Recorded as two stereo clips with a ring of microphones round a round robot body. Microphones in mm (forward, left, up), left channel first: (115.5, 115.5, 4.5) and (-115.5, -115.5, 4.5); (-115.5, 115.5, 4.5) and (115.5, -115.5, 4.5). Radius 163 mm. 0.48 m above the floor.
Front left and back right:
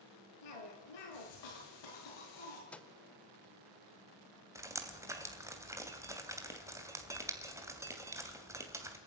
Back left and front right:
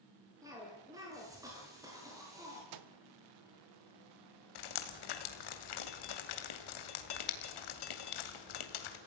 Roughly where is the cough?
Ahead left.